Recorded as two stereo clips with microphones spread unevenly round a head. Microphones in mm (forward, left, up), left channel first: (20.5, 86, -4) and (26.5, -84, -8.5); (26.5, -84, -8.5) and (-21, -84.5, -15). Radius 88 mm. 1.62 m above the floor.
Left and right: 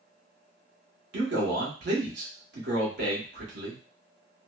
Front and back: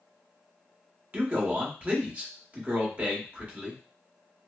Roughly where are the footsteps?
I don't hear footsteps.